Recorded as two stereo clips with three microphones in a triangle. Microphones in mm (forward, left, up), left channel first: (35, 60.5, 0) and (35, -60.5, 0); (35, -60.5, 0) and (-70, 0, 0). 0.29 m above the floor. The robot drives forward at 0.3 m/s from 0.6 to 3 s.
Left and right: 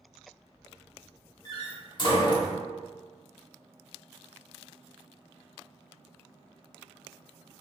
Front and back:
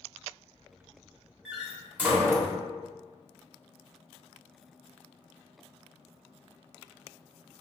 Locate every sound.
1.4 s a door slam: 70° left, 0.9 m; by 2.5 s 105° left, 0.8 m